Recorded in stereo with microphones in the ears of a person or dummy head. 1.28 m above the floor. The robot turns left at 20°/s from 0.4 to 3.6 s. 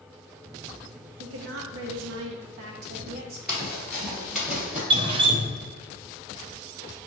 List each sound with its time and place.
1.2 s a woman speaking: 90° right, 0.8 m; by 3.4 s 130° right, 0.8 m
3.5 s running footsteps: centre (ahead or behind), 1.3 m; by 4.8 s 5° right (ahead or behind), 1.7 m
4.9 s dripping: 30° right (ahead or behind), 0.5 m